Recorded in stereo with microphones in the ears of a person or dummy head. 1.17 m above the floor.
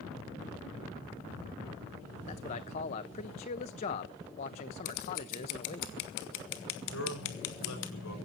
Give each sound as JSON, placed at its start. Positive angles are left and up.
{"t": 2.3, "sound": "a man speaking", "side_deg": 35, "distance_m": 1.2}
{"t": 4.8, "sound": "scissors", "side_deg": 70, "distance_m": 1.8}
{"t": 6.9, "sound": "a man speaking", "side_deg": 70, "distance_m": 5.5}